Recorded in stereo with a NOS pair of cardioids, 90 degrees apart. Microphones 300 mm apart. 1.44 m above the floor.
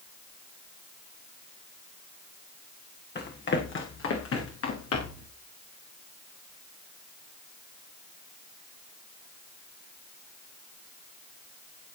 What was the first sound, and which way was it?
Running footsteps, 35° left.